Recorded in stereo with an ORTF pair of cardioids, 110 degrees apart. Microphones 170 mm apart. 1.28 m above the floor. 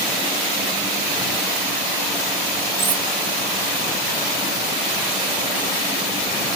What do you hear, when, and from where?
2.8 s cutlery clinking: 30° right, 1.2 m